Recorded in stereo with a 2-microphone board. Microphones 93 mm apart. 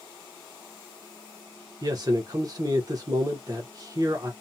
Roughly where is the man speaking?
Right.